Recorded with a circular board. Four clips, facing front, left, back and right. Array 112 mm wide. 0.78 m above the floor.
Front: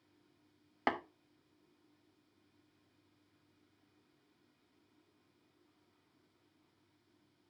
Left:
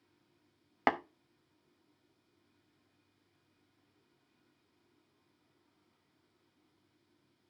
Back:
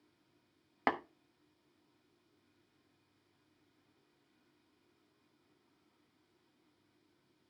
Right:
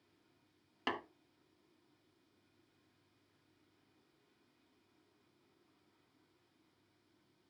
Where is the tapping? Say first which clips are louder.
Left 10 dB, back 1 dB; 105° left, 1.0 m.